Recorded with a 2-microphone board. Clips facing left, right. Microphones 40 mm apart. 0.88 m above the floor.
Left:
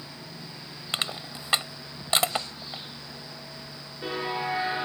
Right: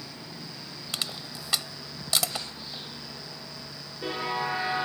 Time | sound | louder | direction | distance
0.9 | crushing | left 4 dB | 35° left (ahead or behind) | ?